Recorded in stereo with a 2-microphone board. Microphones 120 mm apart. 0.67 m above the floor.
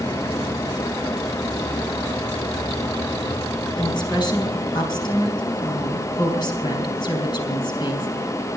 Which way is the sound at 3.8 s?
40° left (ahead or behind).